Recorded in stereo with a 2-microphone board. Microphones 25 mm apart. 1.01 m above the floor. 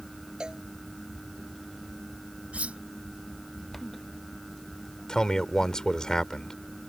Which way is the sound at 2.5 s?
65° right (ahead or behind).